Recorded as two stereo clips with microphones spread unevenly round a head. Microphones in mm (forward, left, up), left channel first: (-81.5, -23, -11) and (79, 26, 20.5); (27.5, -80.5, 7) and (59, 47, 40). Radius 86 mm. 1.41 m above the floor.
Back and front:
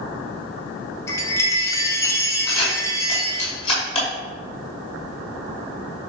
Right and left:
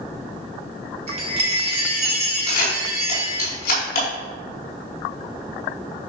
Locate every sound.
1.1 s a chime: 120° left, 1.4 m
2.5 s a camera shutter: 100° right, 5 m